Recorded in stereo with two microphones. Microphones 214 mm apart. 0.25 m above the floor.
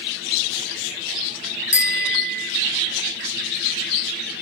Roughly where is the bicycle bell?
Left.